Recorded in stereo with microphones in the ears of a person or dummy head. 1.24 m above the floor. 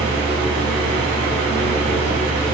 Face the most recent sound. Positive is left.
turn(degrees=-60)  # may be behind; listen again after turning